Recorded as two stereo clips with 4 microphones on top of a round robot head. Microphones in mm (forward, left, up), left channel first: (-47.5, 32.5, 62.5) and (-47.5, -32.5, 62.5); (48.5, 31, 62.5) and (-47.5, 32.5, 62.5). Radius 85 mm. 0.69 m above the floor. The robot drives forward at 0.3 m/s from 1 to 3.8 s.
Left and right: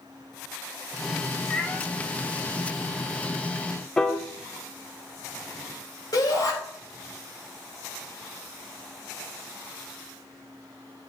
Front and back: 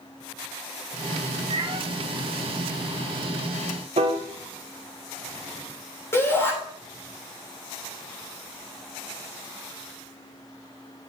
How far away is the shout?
About 3 m.